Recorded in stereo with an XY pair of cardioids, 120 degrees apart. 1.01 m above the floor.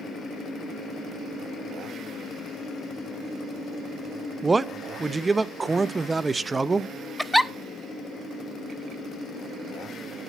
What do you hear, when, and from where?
4.4 s a man speaking: 20° right, 0.7 m
7.2 s a giggle: straight ahead, 0.5 m